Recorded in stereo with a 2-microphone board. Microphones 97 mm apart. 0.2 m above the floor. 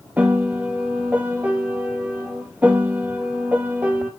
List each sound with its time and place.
0.2 s a piano: 15° right (ahead or behind), 1.4 m